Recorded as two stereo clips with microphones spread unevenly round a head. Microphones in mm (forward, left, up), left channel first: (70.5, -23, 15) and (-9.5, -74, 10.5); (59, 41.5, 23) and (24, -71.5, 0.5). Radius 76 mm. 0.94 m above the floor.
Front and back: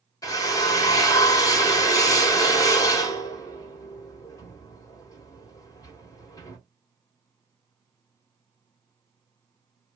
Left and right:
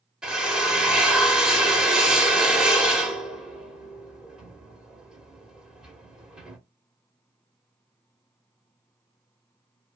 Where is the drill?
20° right, 1.1 m.